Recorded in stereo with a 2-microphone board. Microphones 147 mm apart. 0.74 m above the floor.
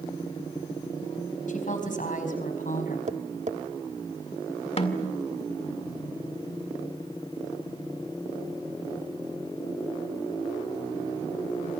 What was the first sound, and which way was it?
A woman speaking, 60° left (ahead or behind).